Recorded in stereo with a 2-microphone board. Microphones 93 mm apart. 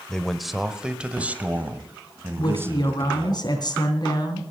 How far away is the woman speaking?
About 3 m.